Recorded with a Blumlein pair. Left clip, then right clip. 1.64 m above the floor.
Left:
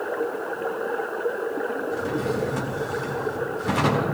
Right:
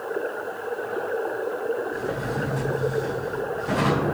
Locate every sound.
1.9 s a drawer: 65° left, 2 m